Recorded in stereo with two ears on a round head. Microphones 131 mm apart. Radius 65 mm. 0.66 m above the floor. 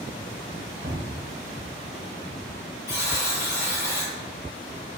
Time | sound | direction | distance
0.8 | a cupboard door | 80° right | 1.2 m
2.9 | a buzzer | 20° left (ahead or behind) | 0.8 m